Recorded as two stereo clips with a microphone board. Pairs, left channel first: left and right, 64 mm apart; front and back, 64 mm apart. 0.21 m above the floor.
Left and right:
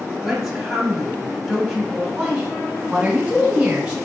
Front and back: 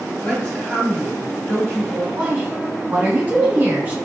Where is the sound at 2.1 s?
140° right, 1.4 m.